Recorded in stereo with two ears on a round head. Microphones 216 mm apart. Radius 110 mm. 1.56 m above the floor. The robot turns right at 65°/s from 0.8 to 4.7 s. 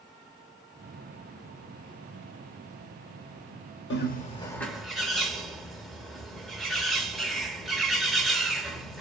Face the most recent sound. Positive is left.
turn(degrees=180)